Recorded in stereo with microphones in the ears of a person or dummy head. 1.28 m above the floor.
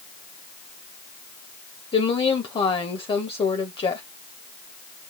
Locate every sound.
1.9 s a woman speaking: 20° left (ahead or behind), 1.4 m